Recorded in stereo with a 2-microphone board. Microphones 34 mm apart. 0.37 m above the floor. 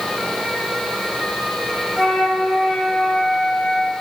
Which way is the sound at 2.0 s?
5° left (ahead or behind).